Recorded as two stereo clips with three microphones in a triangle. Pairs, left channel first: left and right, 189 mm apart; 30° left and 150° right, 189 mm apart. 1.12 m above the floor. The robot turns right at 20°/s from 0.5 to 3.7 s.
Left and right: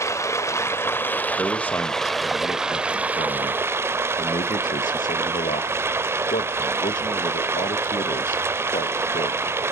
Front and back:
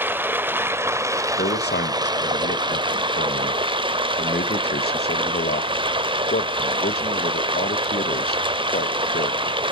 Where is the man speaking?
5° left, 1.5 m; by 9.6 s 50° left, 1.5 m.